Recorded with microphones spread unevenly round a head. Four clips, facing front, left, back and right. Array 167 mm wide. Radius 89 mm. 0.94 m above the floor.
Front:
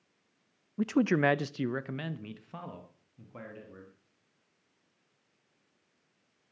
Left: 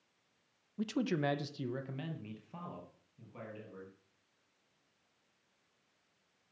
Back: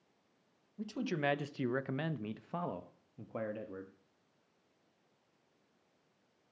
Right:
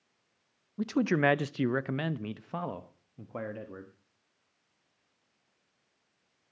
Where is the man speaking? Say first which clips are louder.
Right 7 dB, front 10 dB; 15° right, 0.8 m; by 3.9 s 130° right, 1.7 m.